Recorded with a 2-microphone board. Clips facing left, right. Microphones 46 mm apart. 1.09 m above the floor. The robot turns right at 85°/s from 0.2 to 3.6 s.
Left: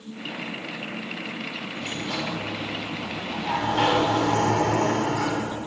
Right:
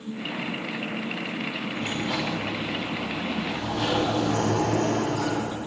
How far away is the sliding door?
About 7 m.